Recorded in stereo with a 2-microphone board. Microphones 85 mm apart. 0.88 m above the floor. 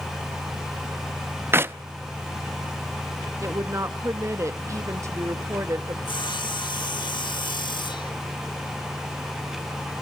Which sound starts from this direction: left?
Sawing, at 6.0 s.